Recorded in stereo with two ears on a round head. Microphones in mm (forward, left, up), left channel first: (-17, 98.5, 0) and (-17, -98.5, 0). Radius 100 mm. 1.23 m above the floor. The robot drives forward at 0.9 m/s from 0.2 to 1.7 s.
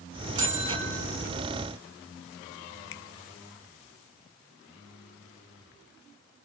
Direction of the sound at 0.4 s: 35° right (ahead or behind).